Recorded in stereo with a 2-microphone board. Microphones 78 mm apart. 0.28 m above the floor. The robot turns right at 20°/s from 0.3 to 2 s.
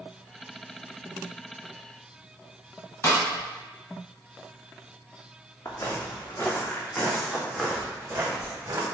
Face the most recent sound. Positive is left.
turn(degrees=-40)  # may be behind; listen again after turning